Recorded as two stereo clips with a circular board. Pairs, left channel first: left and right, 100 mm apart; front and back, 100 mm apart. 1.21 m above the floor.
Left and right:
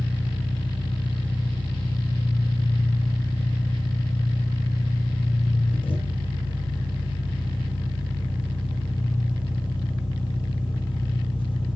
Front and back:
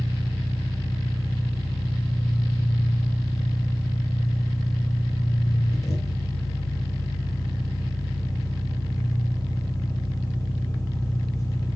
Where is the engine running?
55° left, 1.8 m.